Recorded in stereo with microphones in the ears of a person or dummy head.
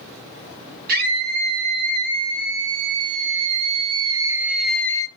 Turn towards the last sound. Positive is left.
turn(degrees=25)  # may be behind; listen again after turning